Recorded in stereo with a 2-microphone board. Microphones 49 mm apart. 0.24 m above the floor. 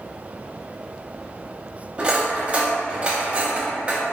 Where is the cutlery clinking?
25° right (ahead or behind), 0.6 m.